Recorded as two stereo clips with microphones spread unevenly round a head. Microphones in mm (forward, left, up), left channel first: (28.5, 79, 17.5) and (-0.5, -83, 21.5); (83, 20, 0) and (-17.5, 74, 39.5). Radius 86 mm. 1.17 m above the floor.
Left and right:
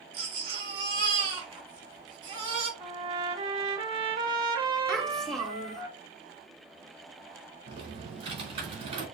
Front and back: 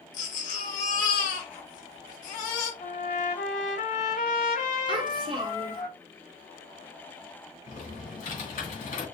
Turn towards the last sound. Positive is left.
turn(degrees=-45)